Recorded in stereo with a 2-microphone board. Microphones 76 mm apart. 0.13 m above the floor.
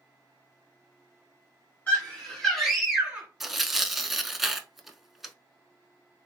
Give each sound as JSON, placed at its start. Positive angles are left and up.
{"t": 1.9, "sound": "a scream", "side_deg": 20, "distance_m": 2.0}
{"t": 3.4, "sound": "tearing paper", "side_deg": -5, "distance_m": 0.5}